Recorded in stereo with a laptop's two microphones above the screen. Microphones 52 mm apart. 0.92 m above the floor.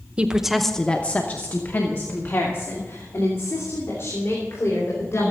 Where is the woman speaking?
25° right (ahead or behind), 0.8 m; by 5.3 s 55° left (ahead or behind), 4.5 m.